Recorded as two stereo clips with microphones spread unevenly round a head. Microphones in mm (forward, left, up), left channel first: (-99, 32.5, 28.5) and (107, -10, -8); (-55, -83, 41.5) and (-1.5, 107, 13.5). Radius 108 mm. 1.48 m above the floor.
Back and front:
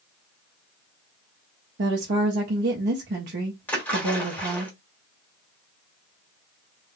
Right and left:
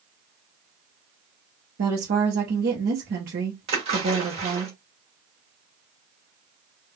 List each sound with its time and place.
1.8 s a woman speaking: 30° left, 0.7 m
3.7 s a splash: 120° left, 1.3 m